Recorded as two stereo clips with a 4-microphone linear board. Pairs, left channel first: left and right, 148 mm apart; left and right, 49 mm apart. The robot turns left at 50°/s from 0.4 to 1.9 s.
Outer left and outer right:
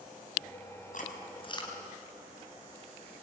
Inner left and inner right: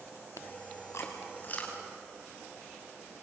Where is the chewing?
60° left (ahead or behind), 4.5 m; by 1.8 s 20° left (ahead or behind), 4.5 m.